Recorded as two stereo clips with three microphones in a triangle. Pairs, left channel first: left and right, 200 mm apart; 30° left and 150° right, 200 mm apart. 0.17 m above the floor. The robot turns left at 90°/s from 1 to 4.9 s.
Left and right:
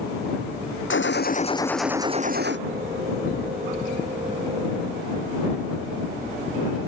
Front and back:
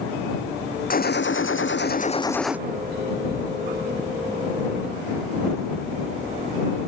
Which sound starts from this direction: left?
A gunshot, at 0.9 s.